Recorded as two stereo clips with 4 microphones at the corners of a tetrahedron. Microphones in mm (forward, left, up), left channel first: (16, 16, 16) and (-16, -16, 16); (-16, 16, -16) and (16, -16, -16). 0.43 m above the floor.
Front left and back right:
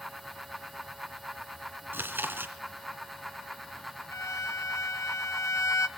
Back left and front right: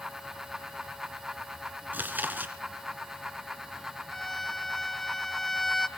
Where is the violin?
50° left, 0.8 m.